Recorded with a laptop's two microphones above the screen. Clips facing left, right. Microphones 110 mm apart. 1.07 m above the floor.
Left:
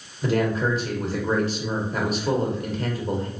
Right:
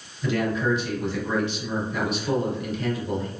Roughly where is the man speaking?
Left.